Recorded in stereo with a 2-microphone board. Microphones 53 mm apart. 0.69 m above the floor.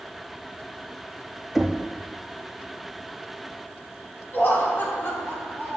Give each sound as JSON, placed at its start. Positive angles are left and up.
{"t": 1.6, "sound": "knocking", "side_deg": -5, "distance_m": 0.6}
{"t": 4.3, "sound": "laughter", "side_deg": 50, "distance_m": 2.0}